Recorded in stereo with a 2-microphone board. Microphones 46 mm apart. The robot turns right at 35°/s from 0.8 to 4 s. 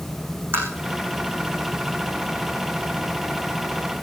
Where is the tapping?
55° right (ahead or behind), 6 m.